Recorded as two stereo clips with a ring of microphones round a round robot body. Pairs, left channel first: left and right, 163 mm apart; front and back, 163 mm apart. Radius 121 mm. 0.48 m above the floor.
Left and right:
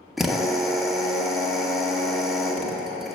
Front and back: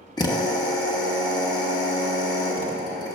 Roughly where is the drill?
Ahead.